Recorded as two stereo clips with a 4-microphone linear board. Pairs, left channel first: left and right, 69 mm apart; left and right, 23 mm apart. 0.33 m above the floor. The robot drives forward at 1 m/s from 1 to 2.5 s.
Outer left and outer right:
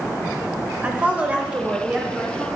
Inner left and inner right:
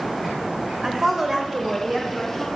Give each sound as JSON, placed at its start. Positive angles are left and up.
{"t": 0.8, "sound": "a woman speaking", "side_deg": -20, "distance_m": 1.0}